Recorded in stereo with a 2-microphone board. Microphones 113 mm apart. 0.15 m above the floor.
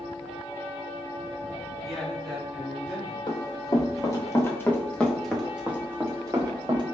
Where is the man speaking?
Centre (ahead or behind), 1.7 m; by 3.2 s 5° right (ahead or behind), 2.5 m.